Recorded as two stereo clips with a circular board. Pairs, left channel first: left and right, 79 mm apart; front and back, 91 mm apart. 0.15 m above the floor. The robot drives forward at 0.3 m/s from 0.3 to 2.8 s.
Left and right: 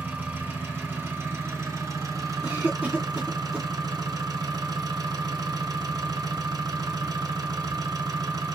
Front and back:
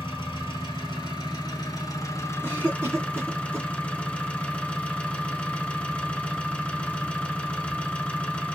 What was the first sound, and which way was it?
An engine running, 25° right.